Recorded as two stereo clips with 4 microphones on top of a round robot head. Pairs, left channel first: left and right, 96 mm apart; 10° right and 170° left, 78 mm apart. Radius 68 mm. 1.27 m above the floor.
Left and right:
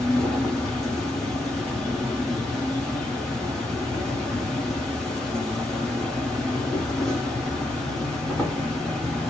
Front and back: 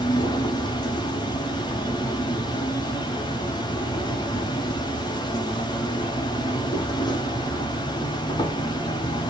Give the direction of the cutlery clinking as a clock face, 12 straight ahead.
No cutlery clinking in this recording.